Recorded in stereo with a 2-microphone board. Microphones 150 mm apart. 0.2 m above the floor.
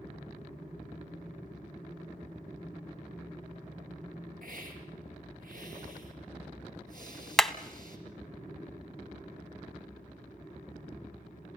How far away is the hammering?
About 0.7 m.